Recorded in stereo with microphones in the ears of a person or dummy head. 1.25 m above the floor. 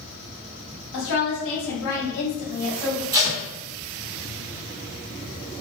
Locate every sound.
0.9 s a woman speaking: 70° left (ahead or behind), 0.9 m; by 3.0 s 30° left (ahead or behind), 1.0 m
3.1 s tape being pulled: 15° right (ahead or behind), 0.8 m